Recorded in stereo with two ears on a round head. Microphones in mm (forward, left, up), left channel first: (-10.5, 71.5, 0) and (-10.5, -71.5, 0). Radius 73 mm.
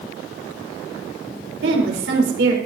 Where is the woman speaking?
85° right, 4.5 m.